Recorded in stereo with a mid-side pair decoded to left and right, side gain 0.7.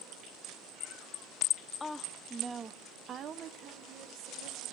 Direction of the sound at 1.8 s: 20° left.